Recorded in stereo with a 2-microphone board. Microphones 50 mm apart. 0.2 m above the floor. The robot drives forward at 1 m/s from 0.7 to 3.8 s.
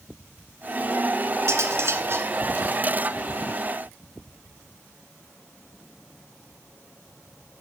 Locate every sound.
1.5 s cutlery clinking: 60° right (ahead or behind), 1.6 m; by 2.3 s 50° right (ahead or behind), 1.8 m